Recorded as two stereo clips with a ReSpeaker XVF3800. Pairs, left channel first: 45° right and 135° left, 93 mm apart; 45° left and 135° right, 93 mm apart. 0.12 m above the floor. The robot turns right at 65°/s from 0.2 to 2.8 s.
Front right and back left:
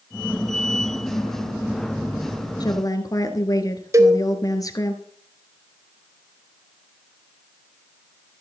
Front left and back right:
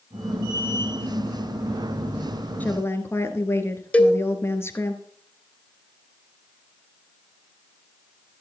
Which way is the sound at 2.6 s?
20° right.